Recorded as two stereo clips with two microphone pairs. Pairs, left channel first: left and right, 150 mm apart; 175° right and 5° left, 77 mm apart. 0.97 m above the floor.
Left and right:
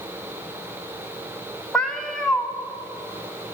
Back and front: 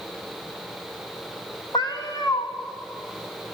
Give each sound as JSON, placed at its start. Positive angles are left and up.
{"t": 1.7, "sound": "a cat meowing", "azimuth_deg": 175, "distance_m": 1.2}